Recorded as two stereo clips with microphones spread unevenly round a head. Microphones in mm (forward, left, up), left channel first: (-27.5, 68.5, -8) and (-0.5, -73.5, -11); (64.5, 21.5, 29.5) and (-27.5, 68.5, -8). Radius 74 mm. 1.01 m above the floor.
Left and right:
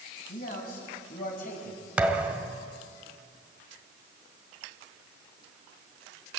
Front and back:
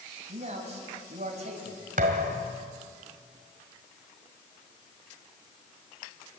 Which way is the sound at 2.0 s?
160° right.